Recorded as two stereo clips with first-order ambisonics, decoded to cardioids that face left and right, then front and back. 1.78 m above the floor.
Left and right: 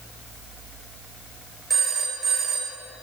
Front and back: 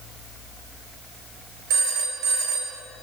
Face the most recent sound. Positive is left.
turn(degrees=-170)